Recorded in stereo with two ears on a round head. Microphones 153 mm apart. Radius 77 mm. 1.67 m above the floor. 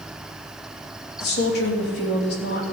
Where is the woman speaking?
70° left (ahead or behind), 3.5 m.